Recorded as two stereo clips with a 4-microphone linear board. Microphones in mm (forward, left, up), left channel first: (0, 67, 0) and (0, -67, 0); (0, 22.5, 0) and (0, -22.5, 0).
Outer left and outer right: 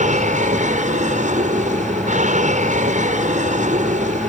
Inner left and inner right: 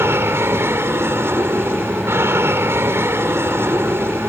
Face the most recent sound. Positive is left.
turn(degrees=-65)  # may be behind; listen again after turning